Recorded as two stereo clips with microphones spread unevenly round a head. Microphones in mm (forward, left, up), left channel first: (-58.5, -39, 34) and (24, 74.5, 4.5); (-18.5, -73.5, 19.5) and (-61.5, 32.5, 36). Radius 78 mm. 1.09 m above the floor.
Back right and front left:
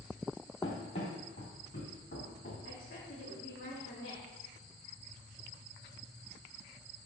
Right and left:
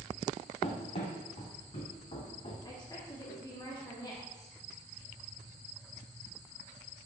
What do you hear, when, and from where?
0.6 s running footsteps: 95° right, 1.7 m; by 2.5 s 105° right, 3 m
2.6 s a woman speaking: 120° right, 2.5 m